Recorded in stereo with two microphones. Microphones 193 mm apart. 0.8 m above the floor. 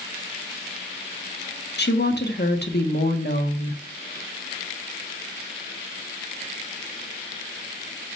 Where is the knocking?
I don't hear knocking.